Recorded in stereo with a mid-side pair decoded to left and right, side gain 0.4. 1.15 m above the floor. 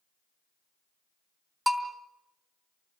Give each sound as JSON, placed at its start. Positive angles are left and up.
{"t": 1.7, "sound": "a bell", "azimuth_deg": -10, "distance_m": 2.5}